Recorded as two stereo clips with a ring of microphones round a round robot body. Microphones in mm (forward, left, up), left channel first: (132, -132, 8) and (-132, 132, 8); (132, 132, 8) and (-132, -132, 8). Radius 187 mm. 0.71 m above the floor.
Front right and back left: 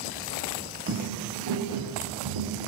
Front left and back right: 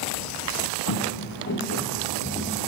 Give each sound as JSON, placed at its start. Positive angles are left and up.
{"t": 0.9, "sound": "footsteps", "azimuth_deg": 85, "distance_m": 0.9}